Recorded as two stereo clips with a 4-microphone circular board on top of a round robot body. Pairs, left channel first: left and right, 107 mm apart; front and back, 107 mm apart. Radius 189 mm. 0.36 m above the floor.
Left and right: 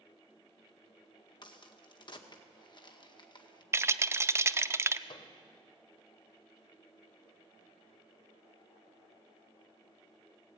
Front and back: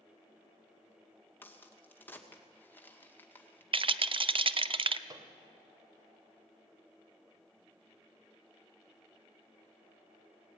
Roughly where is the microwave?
Behind left.